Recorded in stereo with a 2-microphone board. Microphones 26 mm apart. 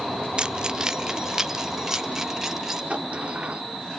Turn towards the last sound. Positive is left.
turn(degrees=-50)  # may be behind; listen again after turning